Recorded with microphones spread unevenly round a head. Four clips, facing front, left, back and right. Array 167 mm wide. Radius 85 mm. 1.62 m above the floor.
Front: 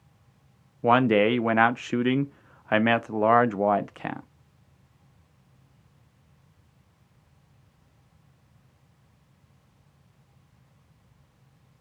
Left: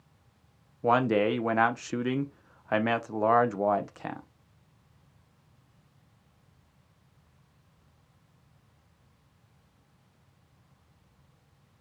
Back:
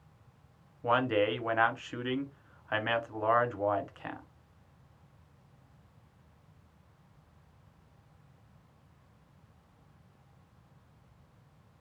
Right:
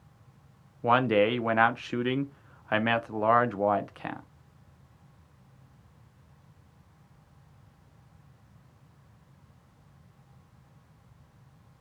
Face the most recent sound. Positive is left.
turn(degrees=10)